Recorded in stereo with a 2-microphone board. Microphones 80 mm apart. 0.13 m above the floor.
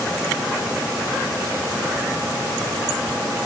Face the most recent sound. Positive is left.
No sound to turn to.